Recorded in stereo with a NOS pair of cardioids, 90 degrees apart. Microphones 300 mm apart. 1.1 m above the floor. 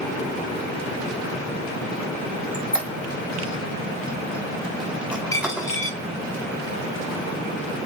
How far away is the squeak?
About 1.4 m.